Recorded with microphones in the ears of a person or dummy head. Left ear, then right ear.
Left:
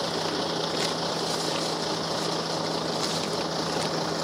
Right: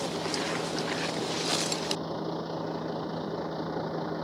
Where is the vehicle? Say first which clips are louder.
Left 4 dB; 55° left (ahead or behind); by 4.2 s 70° left (ahead or behind).